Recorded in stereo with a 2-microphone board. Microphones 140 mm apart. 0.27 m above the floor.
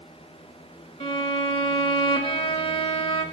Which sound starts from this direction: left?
A violin, at 1.0 s.